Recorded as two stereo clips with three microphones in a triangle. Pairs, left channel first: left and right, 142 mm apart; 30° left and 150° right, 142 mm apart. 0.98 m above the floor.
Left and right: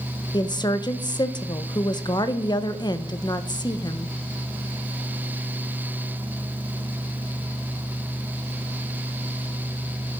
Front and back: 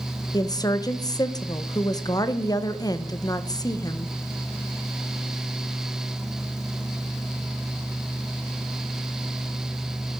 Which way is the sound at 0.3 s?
65° left.